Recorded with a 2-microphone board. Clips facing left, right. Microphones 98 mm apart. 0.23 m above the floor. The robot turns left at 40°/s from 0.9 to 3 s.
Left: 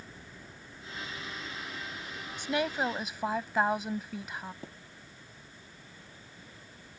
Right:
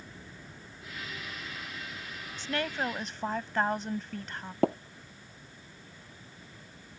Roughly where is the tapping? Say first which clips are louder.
Right 21 dB; right.